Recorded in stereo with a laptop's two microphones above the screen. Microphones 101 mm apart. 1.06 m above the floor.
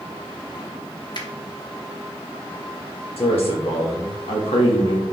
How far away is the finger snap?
About 1.0 m.